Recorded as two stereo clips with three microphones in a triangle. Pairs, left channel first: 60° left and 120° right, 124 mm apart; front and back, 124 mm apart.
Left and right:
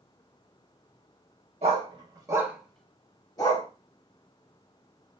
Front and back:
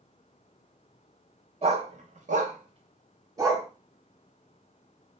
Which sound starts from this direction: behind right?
A dog barking, at 1.6 s.